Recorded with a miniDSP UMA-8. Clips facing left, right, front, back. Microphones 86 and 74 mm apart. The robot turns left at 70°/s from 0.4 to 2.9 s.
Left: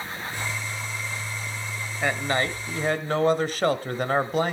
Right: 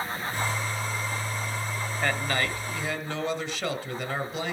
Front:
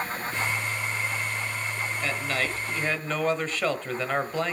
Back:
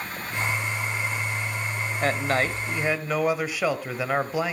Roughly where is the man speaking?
Behind.